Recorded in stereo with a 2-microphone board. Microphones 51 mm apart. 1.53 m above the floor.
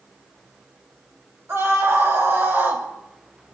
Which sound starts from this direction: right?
A scream, at 1.5 s.